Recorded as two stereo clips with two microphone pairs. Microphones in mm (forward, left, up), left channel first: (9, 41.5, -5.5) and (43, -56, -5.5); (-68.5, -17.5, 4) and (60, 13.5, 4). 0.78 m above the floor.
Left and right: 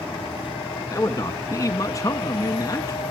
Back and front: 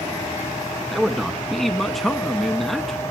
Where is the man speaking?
105° left, 1.0 m.